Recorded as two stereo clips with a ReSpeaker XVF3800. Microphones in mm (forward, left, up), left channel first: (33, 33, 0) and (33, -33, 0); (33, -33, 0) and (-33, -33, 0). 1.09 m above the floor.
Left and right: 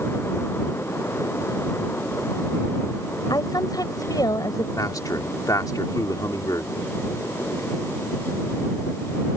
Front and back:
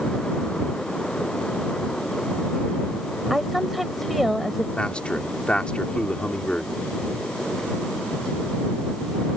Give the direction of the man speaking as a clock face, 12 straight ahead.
10 o'clock.